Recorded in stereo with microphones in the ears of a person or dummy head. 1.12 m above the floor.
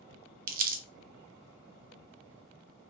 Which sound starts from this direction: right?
Crumpling, at 0.5 s.